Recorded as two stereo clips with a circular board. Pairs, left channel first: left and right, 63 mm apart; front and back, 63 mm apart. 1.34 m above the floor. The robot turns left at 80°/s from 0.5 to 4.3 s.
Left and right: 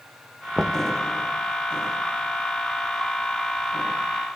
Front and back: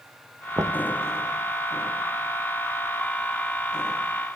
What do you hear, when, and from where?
0.6 s knocking: 170° right, 0.9 m; by 0.8 s 170° left, 0.9 m